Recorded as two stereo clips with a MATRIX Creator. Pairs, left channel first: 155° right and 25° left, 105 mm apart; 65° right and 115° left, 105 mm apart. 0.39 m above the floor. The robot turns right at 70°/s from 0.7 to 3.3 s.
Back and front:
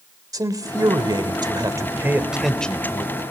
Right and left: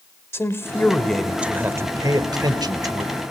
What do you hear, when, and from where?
0.3 s a man speaking: 10° right, 1.5 m; by 3.2 s 165° left, 1.5 m